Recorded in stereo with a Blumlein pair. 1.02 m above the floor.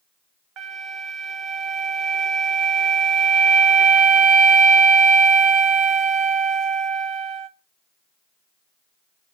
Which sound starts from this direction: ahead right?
A flute, at 0.6 s.